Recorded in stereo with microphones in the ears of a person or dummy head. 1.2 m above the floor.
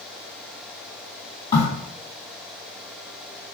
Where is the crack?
25° left (ahead or behind), 1.4 m.